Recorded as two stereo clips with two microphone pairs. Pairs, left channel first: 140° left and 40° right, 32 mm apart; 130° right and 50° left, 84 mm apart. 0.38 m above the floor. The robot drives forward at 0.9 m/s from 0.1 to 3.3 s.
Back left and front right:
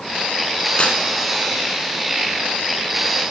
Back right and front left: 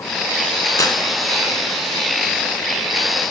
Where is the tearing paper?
170° right, 0.7 m; by 1.0 s 175° right, 0.8 m.